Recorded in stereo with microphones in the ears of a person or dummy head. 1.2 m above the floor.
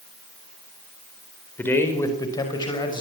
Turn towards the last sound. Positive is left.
turn(degrees=25)  # may be behind; listen again after turning